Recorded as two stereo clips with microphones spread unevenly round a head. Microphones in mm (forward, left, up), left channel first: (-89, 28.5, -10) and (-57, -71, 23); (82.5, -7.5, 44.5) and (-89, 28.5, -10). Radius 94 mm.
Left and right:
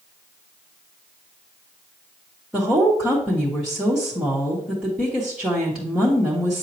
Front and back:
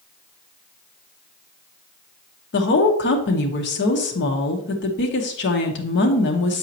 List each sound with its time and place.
2.5 s a woman speaking: 20° left, 1.0 m